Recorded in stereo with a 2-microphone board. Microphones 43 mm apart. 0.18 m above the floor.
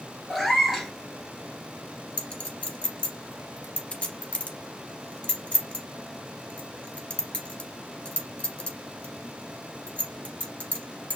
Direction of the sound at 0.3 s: Centre (ahead or behind).